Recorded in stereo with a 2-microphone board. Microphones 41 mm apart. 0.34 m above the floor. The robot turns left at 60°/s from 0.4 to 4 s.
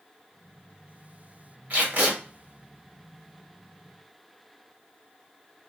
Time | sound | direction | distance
1.7 | tape being pulled | 45° right (ahead or behind) | 1.2 m